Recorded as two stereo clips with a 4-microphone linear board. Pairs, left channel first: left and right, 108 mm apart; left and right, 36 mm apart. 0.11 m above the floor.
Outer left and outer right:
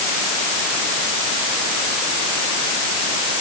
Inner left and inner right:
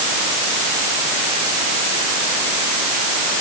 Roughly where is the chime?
I don't hear a chime.